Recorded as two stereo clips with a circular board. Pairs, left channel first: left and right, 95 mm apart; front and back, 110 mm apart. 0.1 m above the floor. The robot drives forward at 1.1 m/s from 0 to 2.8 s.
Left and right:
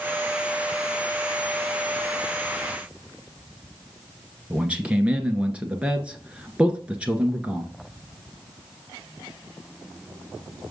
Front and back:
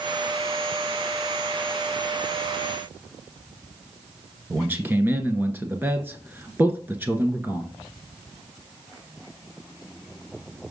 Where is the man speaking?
145° right, 1.1 m.